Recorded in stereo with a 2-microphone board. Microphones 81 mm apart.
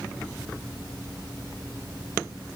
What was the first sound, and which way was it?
Only background noise.